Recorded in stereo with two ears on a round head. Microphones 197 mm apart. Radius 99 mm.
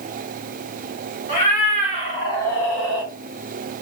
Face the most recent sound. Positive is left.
turn(degrees=-10)  # may be behind; listen again after turning